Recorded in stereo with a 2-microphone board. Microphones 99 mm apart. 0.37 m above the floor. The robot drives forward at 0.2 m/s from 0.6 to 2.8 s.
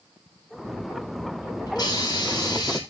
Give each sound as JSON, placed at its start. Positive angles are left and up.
{"t": 1.7, "sound": "a hiss", "side_deg": 45, "distance_m": 3.0}